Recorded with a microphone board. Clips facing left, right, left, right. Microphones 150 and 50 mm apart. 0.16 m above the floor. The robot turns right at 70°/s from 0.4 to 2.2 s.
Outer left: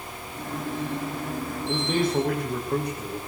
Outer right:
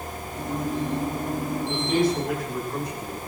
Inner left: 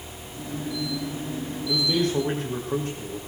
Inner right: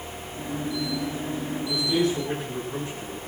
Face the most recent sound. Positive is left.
turn(degrees=70)